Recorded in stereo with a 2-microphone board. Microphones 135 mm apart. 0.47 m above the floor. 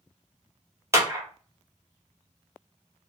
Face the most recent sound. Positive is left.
turn(degrees=-20)  # may be behind; listen again after turning